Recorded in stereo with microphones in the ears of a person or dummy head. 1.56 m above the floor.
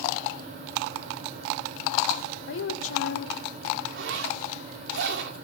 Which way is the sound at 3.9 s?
70° right (ahead or behind).